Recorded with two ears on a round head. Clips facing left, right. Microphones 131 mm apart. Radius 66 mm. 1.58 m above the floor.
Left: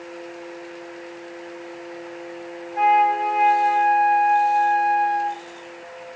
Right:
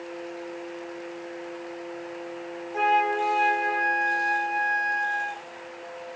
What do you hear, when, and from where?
2.7 s a flute: 65° right (ahead or behind), 2.5 m